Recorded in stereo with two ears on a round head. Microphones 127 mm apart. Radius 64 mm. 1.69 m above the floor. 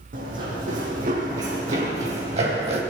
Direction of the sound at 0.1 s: 65° right (ahead or behind).